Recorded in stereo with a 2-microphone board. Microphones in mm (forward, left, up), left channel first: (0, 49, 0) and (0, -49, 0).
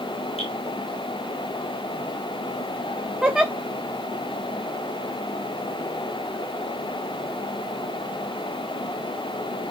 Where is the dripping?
80° left, 5.5 m.